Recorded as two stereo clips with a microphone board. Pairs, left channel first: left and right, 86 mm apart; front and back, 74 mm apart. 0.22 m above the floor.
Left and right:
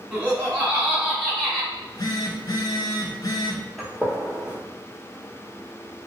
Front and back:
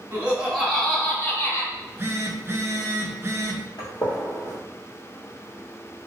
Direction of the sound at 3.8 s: 5° right.